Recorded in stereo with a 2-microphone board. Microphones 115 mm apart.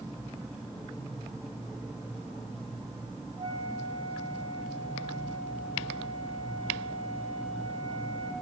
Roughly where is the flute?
Right.